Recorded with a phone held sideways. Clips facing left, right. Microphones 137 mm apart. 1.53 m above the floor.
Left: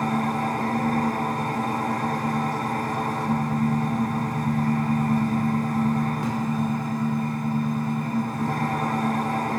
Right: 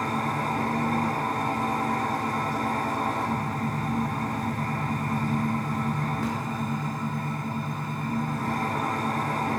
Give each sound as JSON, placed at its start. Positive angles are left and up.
{"t": 0.0, "sound": "an engine running", "side_deg": 15, "distance_m": 5.0}